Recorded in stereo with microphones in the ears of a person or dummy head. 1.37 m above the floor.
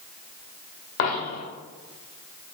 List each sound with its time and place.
1.0 s a dropped coin: 55° left (ahead or behind), 1.7 m